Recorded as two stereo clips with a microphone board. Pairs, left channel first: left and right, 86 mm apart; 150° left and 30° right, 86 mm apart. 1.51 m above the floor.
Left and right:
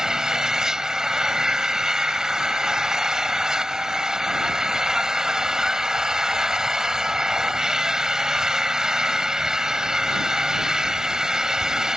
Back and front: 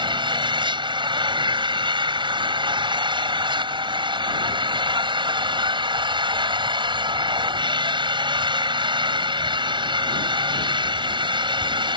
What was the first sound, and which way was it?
An engine running, 5° right.